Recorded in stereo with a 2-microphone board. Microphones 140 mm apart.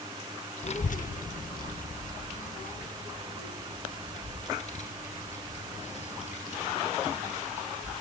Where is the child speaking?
45° left (ahead or behind), 0.6 m; by 7.9 s 50° left (ahead or behind), 7 m.